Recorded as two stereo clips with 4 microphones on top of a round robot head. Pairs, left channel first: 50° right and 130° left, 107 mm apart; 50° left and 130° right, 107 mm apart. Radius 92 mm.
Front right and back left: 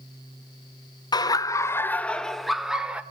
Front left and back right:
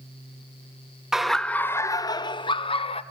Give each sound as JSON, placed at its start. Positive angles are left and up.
{"t": 1.1, "sound": "laughter", "azimuth_deg": -50, "distance_m": 0.9}